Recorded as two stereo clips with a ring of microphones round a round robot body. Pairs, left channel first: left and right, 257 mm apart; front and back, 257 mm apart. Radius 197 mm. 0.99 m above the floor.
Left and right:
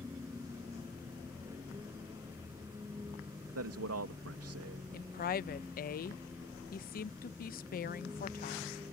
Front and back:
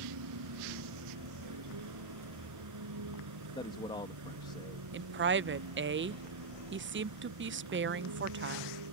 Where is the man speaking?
75° right.